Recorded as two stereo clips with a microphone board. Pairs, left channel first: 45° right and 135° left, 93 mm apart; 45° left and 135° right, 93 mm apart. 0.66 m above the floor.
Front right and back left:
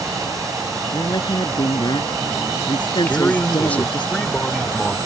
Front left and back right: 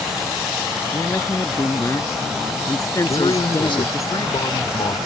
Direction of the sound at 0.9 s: 10° right.